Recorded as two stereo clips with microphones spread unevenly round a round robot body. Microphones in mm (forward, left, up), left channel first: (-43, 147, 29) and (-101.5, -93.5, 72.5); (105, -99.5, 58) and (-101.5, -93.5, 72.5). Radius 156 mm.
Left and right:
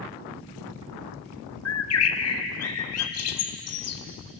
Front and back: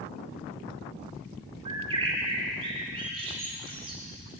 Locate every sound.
1.6 s a bird: 105° left, 1.7 m